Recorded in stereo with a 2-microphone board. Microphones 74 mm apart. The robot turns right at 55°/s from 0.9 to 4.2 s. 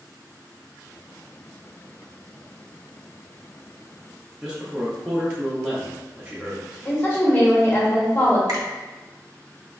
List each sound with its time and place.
4.4 s a man speaking: 10° right (ahead or behind), 0.6 m
6.8 s a woman speaking: 25° left (ahead or behind), 1.1 m
8.5 s a finger snap: 60° right (ahead or behind), 0.8 m